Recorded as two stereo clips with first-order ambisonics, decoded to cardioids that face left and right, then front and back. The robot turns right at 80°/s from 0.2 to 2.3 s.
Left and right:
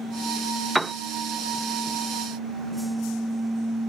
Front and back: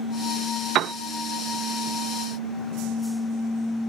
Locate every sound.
0.8 s a piano: 175° right; by 0.9 s 155° right